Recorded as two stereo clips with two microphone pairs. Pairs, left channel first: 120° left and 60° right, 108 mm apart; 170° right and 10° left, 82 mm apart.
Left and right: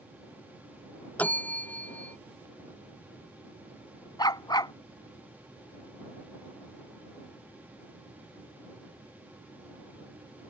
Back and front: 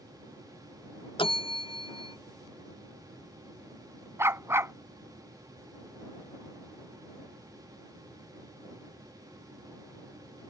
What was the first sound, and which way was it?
A bell, 165° right.